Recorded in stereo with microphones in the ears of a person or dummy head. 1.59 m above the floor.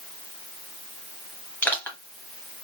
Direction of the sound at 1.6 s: 10° left (ahead or behind).